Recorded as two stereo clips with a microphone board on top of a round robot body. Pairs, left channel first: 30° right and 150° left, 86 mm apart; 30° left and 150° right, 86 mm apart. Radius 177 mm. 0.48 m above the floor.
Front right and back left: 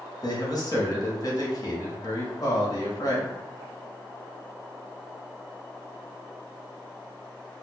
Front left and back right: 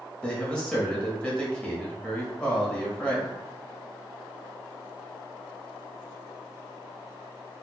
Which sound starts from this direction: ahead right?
A man speaking, at 0.2 s.